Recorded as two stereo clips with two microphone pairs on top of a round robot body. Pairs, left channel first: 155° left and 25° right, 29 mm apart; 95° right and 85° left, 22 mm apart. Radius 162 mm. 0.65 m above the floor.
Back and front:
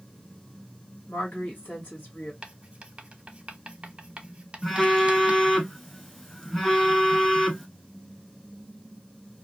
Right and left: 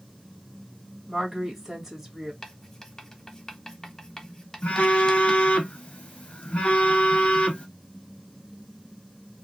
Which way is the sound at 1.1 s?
150° left.